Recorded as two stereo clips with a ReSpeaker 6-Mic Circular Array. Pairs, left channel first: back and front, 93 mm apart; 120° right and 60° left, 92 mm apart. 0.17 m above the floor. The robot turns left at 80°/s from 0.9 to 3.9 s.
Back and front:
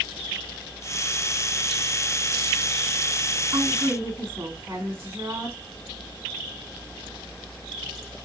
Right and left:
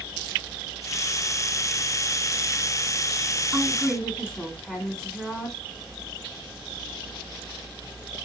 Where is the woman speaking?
5° right, 1.6 m; by 5.6 s 35° right, 1.6 m.